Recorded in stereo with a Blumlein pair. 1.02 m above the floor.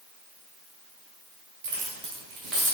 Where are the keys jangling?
45° right, 1.0 m; by 2.7 s 20° right, 1.4 m.